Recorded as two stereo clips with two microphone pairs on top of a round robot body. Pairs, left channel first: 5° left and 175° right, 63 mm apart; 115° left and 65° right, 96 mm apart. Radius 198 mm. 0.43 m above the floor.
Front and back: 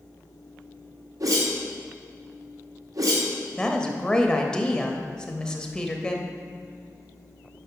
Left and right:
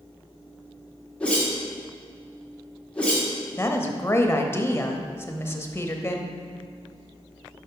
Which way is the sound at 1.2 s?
165° right.